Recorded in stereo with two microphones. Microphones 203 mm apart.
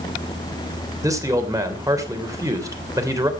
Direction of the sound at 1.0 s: 15° right (ahead or behind).